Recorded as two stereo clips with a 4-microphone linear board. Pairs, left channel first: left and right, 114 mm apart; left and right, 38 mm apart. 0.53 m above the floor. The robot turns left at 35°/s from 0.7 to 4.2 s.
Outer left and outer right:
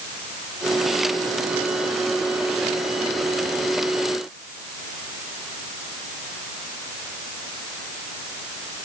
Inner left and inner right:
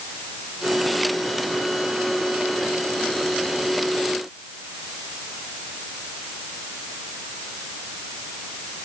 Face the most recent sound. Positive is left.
No sound to turn to.